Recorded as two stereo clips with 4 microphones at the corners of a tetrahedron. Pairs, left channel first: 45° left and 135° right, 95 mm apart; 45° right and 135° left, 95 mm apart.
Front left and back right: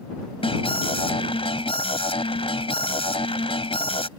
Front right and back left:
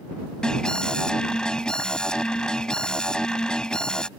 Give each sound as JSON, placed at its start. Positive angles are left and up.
{"t": 0.4, "sound": "an alarm", "azimuth_deg": 35}